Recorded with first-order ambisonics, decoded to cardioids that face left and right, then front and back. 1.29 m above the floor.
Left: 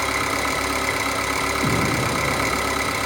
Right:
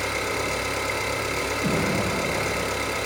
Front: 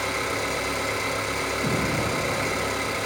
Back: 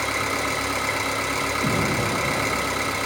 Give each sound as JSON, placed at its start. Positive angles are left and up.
{"t": 0.0, "sound": "an engine running", "azimuth_deg": 100, "distance_m": 1.9}
{"t": 1.6, "sound": "an explosion", "azimuth_deg": 100, "distance_m": 3.5}